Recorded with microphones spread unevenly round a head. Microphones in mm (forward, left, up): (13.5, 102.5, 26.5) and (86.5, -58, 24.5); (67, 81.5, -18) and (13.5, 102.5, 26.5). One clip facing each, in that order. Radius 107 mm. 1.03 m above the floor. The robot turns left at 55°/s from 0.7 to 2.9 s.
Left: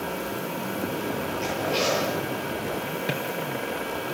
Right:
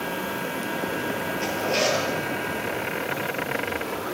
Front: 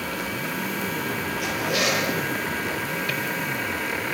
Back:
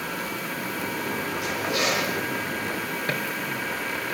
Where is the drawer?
150° left, 4.5 m.